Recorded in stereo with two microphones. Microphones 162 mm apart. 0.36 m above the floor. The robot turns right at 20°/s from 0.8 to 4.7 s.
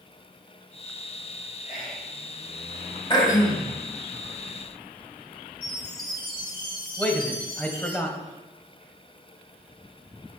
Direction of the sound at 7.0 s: 10° left (ahead or behind).